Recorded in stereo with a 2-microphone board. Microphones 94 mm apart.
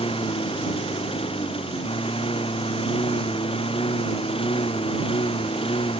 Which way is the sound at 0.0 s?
75° left (ahead or behind).